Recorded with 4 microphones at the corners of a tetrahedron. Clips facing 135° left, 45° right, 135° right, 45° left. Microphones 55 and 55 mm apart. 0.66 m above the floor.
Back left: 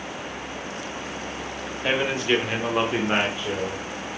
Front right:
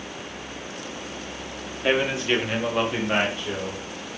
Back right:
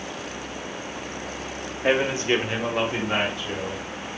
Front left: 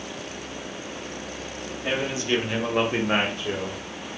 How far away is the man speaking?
About 1.1 m.